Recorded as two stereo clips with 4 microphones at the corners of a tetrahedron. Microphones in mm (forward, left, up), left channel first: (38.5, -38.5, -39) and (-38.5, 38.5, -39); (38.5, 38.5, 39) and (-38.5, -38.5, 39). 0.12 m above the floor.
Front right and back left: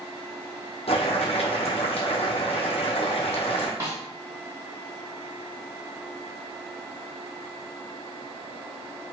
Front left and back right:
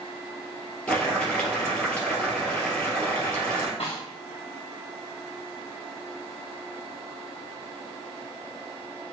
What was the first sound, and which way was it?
Boiling, 35° right.